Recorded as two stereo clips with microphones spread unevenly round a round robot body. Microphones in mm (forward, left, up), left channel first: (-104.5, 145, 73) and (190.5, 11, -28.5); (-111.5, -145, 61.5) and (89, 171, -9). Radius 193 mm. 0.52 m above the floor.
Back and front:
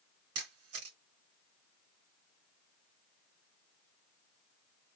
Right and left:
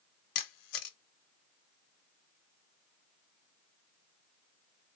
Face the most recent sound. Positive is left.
turn(degrees=-85)